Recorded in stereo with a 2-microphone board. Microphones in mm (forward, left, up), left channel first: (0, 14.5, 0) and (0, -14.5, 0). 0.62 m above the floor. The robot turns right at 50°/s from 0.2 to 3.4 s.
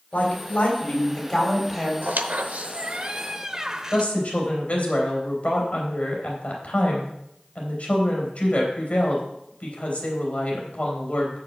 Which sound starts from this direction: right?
A squeak, at 2.0 s.